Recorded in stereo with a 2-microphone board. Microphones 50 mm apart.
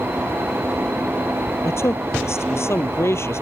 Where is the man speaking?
65° left (ahead or behind).